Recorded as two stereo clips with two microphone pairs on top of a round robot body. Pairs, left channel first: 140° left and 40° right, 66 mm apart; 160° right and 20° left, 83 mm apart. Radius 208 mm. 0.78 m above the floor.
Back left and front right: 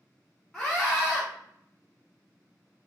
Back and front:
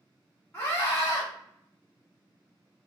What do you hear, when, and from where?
0.5 s a scream: 140° right, 1.1 m